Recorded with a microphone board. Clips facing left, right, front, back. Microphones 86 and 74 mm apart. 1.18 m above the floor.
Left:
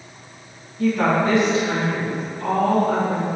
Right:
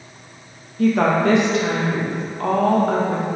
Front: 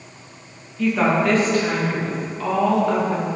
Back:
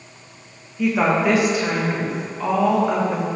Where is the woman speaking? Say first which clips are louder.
Right 2 dB, even; 100° right, 1.7 m.